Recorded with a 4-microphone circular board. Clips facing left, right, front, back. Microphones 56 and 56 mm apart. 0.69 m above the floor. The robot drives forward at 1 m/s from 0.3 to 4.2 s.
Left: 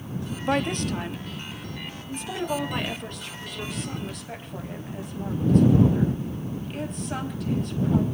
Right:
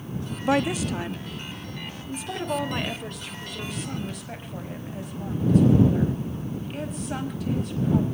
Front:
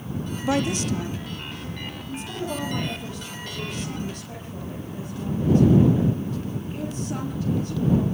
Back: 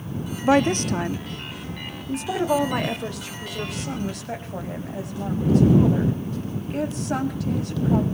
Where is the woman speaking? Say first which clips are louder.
Right 2 dB, back 6 dB; 165° right, 0.8 m; by 8.1 s straight behind, 4 m.